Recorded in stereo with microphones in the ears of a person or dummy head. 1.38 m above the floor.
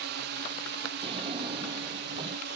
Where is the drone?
50° right (ahead or behind); by 2.6 s 55° right (ahead or behind).